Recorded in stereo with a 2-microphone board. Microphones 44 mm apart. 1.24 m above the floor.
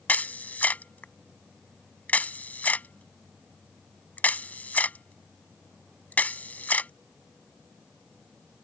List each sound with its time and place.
0.1 s a camera shutter: 40° left (ahead or behind)